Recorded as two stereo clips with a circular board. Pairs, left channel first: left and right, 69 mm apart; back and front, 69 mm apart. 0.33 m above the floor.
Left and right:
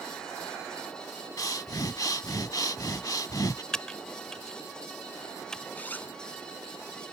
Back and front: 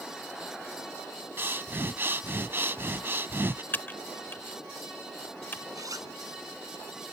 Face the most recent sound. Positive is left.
turn(degrees=25)